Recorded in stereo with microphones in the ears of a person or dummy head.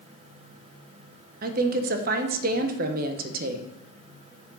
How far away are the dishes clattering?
I don't hear dishes clattering.